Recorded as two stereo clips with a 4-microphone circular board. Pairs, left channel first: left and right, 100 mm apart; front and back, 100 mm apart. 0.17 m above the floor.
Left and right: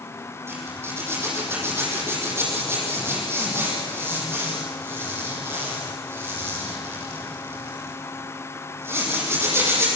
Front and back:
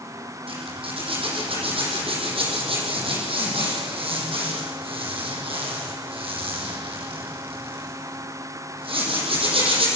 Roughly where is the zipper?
Behind right.